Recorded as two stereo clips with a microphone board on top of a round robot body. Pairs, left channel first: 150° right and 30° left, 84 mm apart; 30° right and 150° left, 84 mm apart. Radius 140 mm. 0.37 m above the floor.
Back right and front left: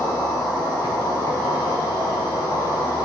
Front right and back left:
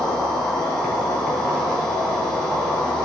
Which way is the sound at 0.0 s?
110° right.